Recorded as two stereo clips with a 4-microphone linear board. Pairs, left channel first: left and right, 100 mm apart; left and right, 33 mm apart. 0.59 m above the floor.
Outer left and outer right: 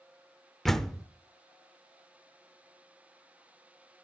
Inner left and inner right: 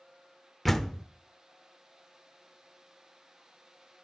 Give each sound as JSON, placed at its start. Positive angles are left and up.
{"t": 0.7, "sound": "a door slam", "side_deg": 5, "distance_m": 0.9}